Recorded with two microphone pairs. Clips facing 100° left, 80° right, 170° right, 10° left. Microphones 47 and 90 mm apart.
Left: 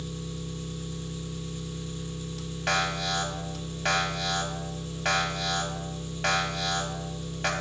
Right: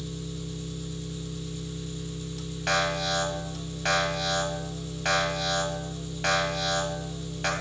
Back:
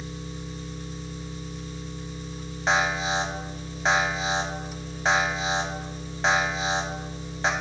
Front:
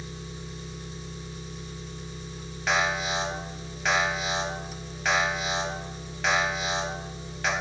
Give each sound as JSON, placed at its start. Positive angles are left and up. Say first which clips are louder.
{"t": 0.0, "sound": "an engine running", "louder": "even, back 3 dB", "azimuth_deg": 75, "distance_m": 1.0}
{"t": 2.7, "sound": "an alarm", "louder": "right 1 dB, back 2 dB", "azimuth_deg": 180, "distance_m": 0.7}